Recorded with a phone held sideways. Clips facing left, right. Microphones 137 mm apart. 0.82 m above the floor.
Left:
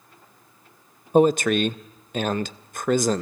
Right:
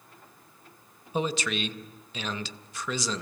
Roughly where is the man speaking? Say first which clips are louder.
Left 12 dB; left.